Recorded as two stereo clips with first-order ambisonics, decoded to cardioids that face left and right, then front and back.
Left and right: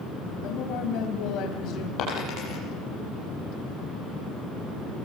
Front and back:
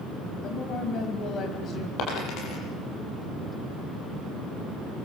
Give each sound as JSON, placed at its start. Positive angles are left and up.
{"t": 0.4, "sound": "a woman speaking", "azimuth_deg": 55, "distance_m": 3.5}
{"t": 2.0, "sound": "a dropped coin", "azimuth_deg": 40, "distance_m": 8.5}